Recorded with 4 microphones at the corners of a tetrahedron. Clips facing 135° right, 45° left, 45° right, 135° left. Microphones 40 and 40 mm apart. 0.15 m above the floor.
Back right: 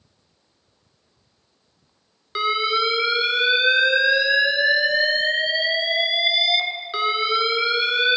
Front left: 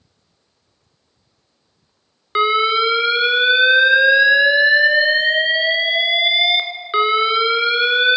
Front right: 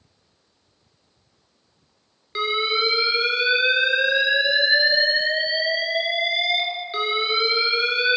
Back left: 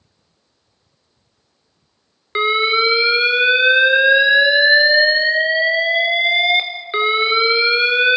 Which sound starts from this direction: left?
An alarm, at 2.4 s.